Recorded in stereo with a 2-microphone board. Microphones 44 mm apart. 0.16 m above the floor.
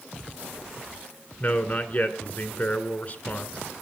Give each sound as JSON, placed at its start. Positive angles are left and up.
{"t": 1.4, "sound": "a man speaking", "side_deg": 35, "distance_m": 1.6}